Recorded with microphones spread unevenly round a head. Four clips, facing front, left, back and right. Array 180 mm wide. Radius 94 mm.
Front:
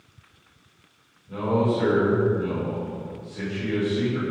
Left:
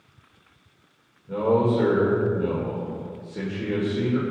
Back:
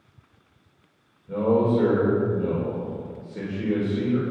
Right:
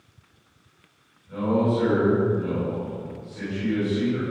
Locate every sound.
1.3 s a man speaking: 125° left, 4.5 m